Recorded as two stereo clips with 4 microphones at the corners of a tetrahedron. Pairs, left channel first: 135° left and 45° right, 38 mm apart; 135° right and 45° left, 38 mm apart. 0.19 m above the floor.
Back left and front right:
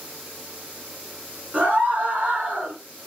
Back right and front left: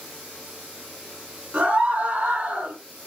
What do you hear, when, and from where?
1.5 s a scream: 5° left, 2.5 m